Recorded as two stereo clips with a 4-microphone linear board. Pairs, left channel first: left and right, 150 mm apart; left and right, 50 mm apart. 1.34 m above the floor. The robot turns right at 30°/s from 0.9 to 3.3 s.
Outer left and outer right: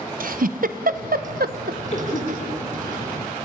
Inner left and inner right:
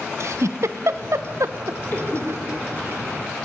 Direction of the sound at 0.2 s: 65° right (ahead or behind).